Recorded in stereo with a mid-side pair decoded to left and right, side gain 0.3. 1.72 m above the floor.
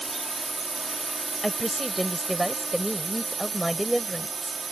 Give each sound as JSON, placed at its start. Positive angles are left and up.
{"t": 0.0, "sound": "a drone", "azimuth_deg": -30}
{"t": 1.4, "sound": "a woman speaking", "azimuth_deg": -5}